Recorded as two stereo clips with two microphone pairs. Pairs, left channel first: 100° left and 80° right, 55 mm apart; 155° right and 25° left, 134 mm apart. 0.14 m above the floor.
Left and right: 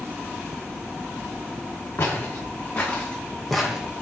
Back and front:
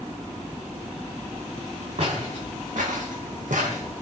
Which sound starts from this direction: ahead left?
Footsteps, at 2.0 s.